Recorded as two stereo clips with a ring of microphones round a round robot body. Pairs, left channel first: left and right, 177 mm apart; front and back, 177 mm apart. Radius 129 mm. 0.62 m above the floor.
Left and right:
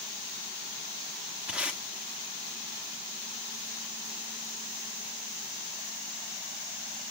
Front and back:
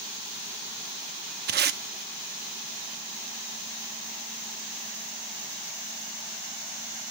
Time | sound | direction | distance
1.5 | tape being pulled | 175° right | 0.5 m